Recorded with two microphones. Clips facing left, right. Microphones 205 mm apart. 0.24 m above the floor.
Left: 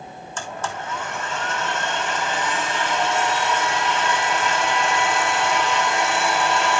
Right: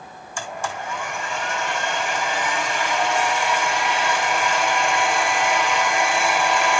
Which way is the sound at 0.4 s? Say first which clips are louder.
Right 1 dB; 10° right (ahead or behind).